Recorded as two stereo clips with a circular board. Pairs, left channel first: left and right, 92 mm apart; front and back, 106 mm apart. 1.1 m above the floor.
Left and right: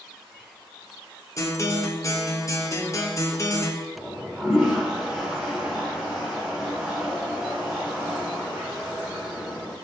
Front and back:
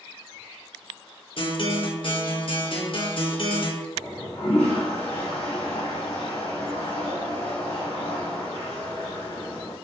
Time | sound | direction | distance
1.4 | a guitar | 35° left | 0.5 m
4.0 | a toilet flushing | 10° right | 1.2 m